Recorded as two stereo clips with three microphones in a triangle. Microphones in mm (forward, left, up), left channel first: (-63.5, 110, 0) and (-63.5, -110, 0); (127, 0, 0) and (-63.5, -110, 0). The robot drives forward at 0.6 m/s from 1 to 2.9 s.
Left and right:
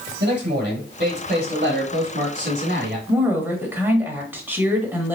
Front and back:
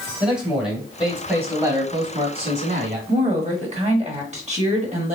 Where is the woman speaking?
165° right, 1.1 m.